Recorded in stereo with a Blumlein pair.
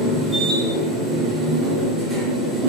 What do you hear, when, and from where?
0.0 s a machine running: 5° right, 0.8 m